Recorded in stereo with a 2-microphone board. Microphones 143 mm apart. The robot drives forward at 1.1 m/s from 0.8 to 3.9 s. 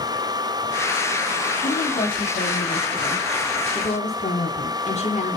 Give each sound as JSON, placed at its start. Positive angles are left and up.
{"t": 1.6, "sound": "a woman speaking", "side_deg": 80, "distance_m": 3.0}